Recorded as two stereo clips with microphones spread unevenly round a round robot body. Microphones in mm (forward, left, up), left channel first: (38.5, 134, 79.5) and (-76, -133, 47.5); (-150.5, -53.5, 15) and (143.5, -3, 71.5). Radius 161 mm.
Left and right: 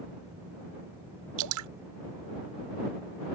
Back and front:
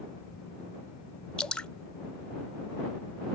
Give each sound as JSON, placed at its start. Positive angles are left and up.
{"t": 1.4, "sound": "dripping", "azimuth_deg": -85}